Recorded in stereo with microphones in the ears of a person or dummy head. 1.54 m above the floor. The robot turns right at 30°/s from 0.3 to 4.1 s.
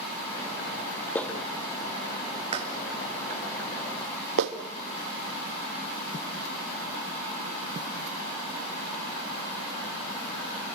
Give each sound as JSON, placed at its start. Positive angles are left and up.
{"t": 1.1, "sound": "a clap", "side_deg": 5, "distance_m": 1.7}